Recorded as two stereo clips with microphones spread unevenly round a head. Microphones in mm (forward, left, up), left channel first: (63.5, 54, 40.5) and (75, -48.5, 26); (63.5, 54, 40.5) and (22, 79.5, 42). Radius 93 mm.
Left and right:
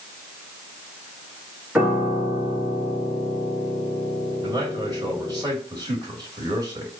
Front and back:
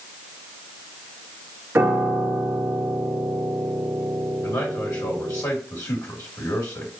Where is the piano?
160° right, 0.7 m.